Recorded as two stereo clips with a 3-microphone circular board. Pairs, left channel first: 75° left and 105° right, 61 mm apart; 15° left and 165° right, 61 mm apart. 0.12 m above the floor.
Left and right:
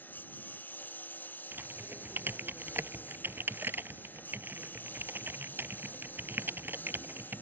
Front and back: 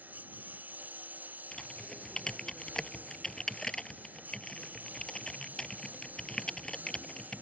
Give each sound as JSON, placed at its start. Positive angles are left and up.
{"t": 0.0, "sound": "a lawn mower", "azimuth_deg": 135}
{"t": 1.5, "sound": "typing on a keyboard", "azimuth_deg": -60}